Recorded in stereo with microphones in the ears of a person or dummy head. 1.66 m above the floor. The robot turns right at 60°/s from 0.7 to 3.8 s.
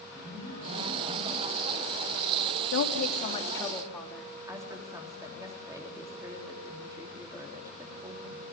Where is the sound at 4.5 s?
20° right (ahead or behind), 3.5 m.